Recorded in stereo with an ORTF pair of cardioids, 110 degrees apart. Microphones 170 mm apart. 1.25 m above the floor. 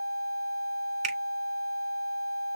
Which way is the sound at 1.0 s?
40° right.